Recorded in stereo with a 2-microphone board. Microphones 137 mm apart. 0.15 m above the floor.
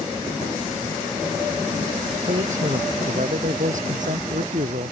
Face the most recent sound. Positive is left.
turn(degrees=-60)  # may be behind; listen again after turning